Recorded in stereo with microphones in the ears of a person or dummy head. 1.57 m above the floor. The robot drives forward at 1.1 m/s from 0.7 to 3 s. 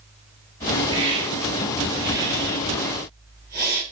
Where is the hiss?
30° right (ahead or behind), 2.5 m; by 3.8 s 15° right (ahead or behind), 4.5 m.